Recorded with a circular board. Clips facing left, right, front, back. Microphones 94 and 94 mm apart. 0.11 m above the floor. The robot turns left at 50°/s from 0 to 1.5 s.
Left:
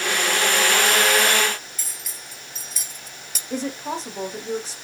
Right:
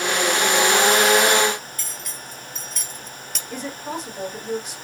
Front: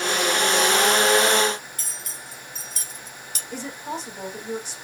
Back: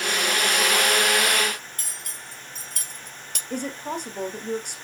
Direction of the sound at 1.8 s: 175° left.